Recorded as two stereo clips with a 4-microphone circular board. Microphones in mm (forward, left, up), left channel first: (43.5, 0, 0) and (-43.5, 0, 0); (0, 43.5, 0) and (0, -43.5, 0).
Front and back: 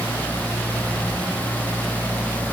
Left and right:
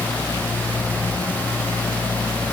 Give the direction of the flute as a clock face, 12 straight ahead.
I don't hear a flute.